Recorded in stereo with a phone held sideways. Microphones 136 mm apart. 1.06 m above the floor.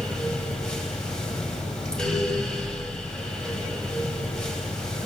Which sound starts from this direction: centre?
A fan, at 0.0 s.